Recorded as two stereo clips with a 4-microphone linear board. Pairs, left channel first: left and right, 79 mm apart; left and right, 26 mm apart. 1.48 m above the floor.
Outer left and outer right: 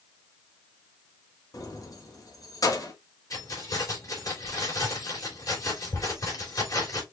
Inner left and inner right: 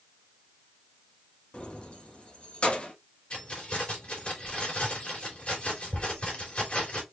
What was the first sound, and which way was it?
Keys jangling, 50° left (ahead or behind).